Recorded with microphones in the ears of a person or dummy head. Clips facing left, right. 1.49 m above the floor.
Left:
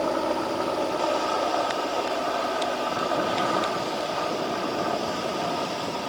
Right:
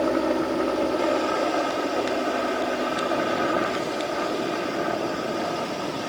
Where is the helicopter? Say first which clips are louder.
Right 3 dB; 25° right (ahead or behind).